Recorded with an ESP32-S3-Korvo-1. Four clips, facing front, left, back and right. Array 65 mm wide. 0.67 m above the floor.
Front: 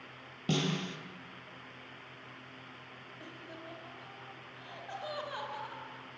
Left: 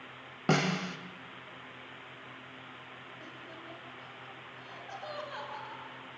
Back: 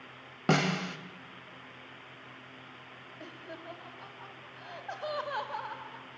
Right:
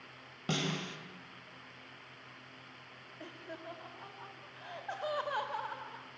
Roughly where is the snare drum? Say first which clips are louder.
Left 7 dB, back 5 dB; behind left.